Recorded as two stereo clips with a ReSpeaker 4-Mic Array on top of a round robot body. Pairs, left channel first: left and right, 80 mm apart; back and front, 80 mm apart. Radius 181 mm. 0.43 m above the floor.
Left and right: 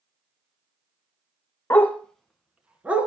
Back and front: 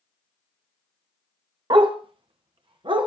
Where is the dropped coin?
No dropped coin in this recording.